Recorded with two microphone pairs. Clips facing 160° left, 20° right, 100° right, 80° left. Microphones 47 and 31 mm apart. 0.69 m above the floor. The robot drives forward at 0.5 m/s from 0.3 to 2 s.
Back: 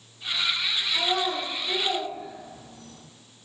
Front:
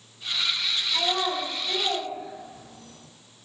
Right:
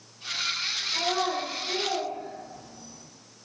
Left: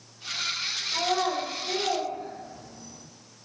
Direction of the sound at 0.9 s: 40° left.